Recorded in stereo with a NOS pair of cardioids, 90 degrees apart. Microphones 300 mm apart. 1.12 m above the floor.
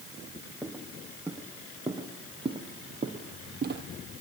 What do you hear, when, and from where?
0.6 s footsteps: 5° right, 3.5 m; by 3.8 s 40° right, 2.5 m